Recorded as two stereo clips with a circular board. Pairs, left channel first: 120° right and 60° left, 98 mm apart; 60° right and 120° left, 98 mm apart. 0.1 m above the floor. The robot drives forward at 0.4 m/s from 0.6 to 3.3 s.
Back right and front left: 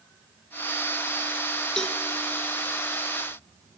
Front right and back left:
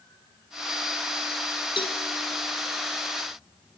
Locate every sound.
1.8 s a cowbell: 40° right, 2 m